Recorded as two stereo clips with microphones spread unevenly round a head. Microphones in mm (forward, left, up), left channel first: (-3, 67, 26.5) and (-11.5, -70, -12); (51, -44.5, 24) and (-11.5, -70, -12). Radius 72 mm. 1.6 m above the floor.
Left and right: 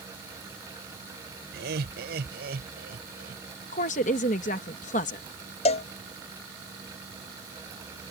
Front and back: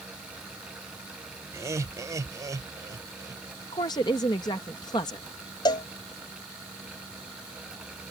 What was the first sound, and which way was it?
Laughter, 110° right.